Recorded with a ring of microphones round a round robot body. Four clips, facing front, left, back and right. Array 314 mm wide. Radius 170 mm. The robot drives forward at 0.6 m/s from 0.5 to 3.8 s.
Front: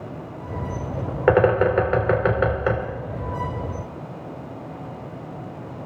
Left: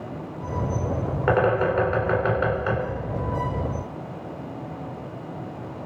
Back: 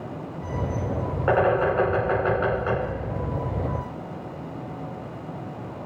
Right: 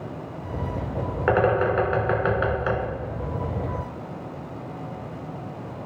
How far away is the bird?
About 3 m.